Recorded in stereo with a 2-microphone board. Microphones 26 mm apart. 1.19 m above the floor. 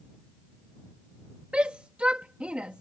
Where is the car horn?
No car horn in this recording.